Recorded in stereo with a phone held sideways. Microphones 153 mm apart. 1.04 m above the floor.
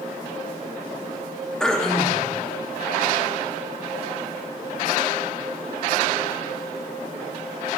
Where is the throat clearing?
5° left (ahead or behind), 1.0 m.